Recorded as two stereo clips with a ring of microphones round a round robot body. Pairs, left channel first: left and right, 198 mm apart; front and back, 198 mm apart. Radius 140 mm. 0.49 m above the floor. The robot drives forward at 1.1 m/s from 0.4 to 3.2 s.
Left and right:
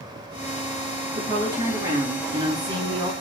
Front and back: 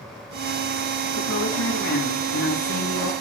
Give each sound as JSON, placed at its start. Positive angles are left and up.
{"t": 1.1, "sound": "a woman speaking", "azimuth_deg": -15, "distance_m": 8.0}